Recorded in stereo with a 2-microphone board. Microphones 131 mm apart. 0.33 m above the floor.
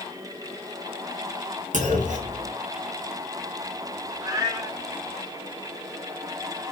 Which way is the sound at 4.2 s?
30° right (ahead or behind).